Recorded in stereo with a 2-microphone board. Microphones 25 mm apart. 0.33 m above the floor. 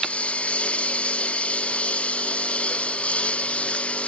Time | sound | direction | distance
0.0 | a lawn mower | 65° left (ahead or behind) | ?